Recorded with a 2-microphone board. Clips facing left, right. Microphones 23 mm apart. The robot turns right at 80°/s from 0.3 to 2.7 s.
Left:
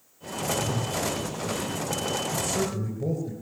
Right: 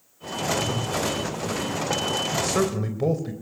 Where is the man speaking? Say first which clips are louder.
Right 4 dB; 140° right, 3 m; by 3.3 s 105° right, 3 m.